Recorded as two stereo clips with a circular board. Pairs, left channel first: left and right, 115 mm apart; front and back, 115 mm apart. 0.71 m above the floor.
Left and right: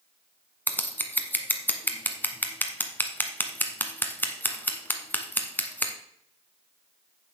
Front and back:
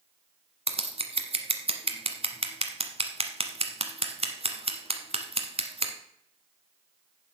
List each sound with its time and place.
0.7 s scissors: 160° left, 1.1 m